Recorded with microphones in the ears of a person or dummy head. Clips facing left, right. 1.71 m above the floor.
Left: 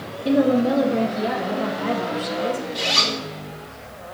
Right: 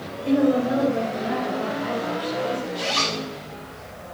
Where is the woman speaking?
55° left (ahead or behind), 1.5 m; by 2.6 s 45° left (ahead or behind), 1.3 m.